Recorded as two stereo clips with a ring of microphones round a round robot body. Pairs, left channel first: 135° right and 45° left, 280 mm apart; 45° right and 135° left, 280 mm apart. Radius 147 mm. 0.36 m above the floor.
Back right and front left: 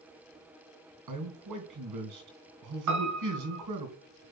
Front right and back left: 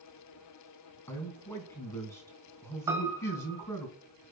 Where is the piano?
55° left, 2 m.